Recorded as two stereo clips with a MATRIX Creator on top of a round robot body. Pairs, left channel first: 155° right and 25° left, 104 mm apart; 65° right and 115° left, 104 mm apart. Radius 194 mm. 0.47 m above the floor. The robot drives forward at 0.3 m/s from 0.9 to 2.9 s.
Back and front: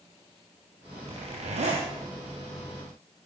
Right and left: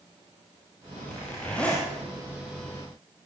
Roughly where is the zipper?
Ahead.